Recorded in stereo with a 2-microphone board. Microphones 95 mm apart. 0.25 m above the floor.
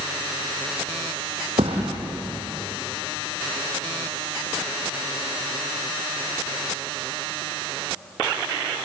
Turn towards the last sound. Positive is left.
turn(degrees=-80)